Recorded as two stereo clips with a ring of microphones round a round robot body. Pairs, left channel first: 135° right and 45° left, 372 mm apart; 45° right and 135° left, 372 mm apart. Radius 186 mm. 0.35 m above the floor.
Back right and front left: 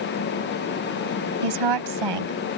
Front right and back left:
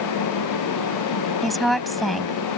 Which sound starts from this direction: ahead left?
A woman speaking, at 1.4 s.